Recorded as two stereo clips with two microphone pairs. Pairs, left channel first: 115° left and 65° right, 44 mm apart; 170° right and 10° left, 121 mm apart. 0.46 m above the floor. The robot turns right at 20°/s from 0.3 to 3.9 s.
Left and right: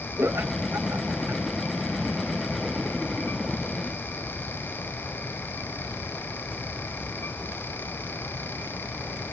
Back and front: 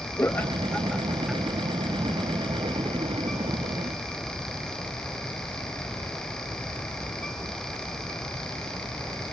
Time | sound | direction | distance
0.2 | laughter | 100° right | ?